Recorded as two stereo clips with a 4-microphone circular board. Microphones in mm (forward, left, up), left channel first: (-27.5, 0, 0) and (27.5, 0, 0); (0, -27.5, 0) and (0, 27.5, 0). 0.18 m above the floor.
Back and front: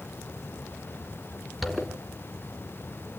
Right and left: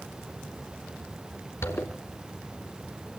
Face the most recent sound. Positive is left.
turn(degrees=-90)